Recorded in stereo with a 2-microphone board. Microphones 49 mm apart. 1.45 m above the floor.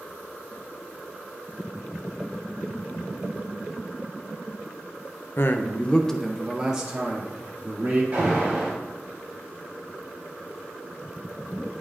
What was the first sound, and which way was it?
A man speaking, 55° left (ahead or behind).